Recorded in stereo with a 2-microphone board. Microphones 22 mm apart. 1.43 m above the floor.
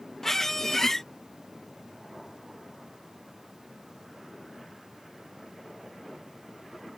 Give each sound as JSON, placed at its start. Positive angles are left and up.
{"t": 0.2, "sound": "a squeak", "side_deg": 15}